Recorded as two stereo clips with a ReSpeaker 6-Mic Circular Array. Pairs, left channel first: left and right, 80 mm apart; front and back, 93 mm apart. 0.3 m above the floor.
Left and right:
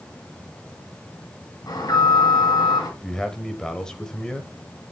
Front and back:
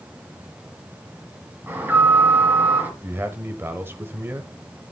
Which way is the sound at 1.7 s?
115° left.